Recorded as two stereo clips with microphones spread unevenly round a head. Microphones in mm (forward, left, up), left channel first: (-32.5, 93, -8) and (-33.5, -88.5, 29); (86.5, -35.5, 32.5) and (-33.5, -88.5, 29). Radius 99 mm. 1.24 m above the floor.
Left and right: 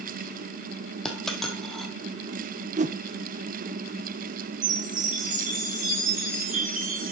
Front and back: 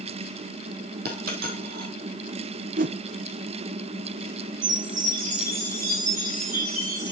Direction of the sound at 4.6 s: 135° right.